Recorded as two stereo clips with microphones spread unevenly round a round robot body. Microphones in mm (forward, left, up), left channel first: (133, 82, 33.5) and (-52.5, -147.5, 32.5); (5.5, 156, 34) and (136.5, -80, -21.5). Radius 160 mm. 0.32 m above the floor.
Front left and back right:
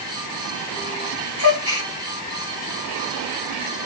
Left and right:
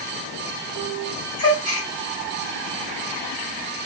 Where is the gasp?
80° left, 3 m.